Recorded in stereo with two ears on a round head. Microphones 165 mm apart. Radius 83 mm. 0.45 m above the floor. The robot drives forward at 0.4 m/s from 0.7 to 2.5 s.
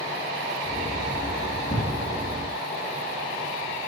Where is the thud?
15° left (ahead or behind), 3 m.